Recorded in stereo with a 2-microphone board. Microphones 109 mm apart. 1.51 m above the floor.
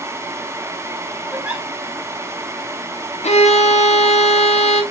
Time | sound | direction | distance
1.3 | a giggle | 15° right (ahead or behind) | 1.9 m
3.2 | a violin | 85° left | 1.5 m